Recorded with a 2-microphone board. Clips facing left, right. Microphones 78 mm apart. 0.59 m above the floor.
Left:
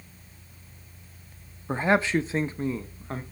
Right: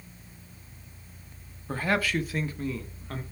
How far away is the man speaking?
About 0.6 m.